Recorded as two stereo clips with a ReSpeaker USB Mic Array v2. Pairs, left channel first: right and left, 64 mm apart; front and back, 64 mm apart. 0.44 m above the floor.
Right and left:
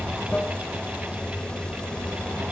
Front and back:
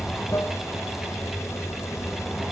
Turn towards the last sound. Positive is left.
turn(degrees=-15)